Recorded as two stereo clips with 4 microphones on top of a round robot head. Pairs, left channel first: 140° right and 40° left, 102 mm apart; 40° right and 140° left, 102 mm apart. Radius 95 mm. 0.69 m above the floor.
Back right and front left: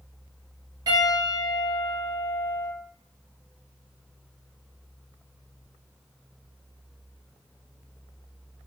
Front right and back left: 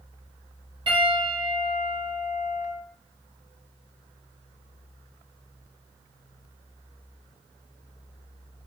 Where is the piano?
95° left, 1.4 m.